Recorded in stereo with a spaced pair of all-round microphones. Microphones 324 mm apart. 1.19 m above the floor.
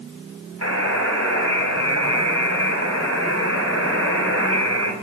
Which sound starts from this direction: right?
A buzzer, at 0.6 s.